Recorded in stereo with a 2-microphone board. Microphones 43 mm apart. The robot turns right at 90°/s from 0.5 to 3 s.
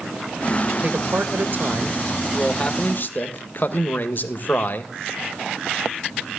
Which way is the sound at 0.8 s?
140° right.